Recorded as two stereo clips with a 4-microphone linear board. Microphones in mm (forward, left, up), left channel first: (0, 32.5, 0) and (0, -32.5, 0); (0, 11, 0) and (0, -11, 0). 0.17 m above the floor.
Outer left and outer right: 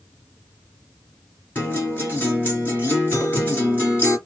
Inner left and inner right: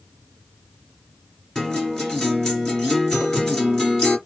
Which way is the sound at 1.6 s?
30° left (ahead or behind).